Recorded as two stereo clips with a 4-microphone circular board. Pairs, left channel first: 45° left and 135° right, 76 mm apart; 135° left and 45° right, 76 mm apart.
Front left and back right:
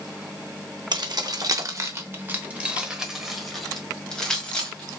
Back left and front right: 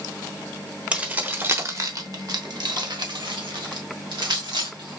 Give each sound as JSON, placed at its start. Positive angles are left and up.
{"t": 0.9, "sound": "keys jangling", "azimuth_deg": -120, "distance_m": 1.0}